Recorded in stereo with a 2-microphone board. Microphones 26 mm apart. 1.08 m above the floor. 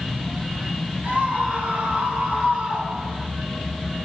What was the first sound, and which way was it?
A scream, 75° right (ahead or behind).